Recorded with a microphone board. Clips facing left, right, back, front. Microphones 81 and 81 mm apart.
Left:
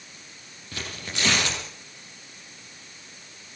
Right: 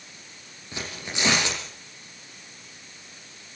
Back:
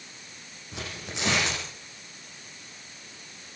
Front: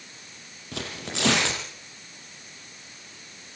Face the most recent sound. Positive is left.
turn(degrees=-15)